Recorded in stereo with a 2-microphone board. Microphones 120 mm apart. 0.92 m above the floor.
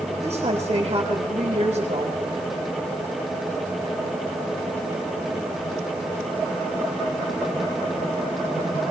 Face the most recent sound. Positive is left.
turn(degrees=-55)  # may be behind; listen again after turning